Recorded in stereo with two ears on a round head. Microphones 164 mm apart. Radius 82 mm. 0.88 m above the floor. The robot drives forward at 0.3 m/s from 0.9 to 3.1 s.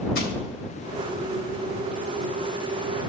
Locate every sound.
0.1 s crushing: 55° left (ahead or behind), 1.4 m